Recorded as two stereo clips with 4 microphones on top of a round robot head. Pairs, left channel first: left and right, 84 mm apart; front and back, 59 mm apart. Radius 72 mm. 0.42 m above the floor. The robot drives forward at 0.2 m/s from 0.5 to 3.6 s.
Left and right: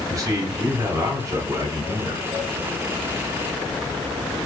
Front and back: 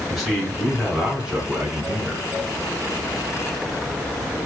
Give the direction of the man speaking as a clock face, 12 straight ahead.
3 o'clock.